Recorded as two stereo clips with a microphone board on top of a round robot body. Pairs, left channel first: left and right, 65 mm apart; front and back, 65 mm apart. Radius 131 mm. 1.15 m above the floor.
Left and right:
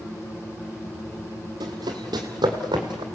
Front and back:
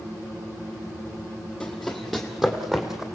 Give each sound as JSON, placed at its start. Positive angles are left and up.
{"t": 1.6, "sound": "running footsteps", "azimuth_deg": -85, "distance_m": 1.7}